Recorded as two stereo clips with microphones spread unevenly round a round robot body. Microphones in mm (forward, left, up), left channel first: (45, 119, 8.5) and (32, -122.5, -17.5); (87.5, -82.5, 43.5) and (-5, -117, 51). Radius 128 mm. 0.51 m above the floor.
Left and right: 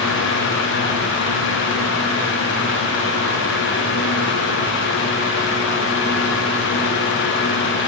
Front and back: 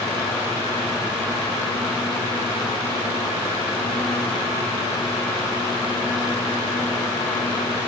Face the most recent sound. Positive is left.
No sound to turn to.